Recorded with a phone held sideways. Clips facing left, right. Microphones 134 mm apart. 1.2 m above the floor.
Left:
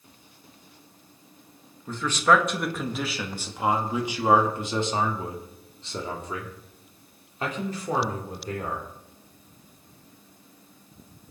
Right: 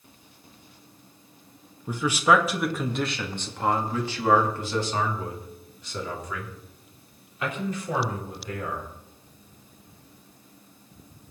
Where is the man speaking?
15° right (ahead or behind), 2.0 m; by 8.9 s 40° left (ahead or behind), 4.5 m.